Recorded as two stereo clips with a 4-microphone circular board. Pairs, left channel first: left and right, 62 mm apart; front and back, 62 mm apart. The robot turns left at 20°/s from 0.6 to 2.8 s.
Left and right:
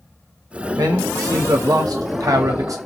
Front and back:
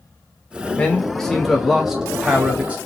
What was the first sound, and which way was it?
A man speaking, 75° right.